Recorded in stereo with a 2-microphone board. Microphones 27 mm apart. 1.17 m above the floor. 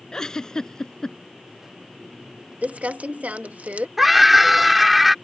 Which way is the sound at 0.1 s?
25° left (ahead or behind).